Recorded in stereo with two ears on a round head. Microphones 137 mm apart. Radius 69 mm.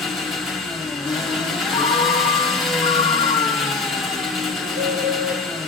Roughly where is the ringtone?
Left.